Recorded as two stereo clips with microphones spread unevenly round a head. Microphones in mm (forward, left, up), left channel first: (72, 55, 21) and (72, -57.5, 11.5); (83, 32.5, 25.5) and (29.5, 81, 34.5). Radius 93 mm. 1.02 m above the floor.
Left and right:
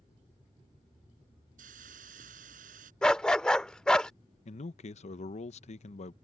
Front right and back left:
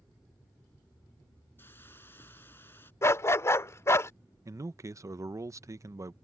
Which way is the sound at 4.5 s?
95° left.